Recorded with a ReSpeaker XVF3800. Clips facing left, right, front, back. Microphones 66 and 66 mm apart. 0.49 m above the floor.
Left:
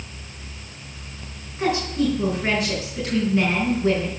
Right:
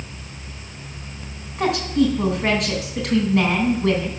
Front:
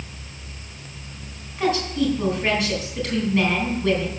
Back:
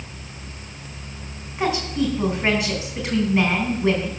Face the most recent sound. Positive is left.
turn(degrees=-110)